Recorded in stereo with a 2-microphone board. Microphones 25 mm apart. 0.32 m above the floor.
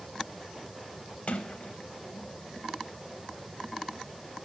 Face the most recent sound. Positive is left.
turn(degrees=60)  # may be behind; listen again after turning